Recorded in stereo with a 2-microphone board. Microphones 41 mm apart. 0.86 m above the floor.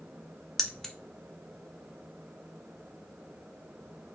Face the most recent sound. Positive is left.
turn(degrees=10)  # may be behind; listen again after turning